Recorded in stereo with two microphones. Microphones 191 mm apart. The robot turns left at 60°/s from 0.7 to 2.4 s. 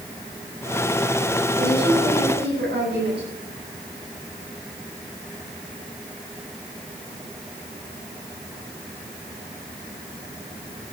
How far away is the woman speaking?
About 7.5 m.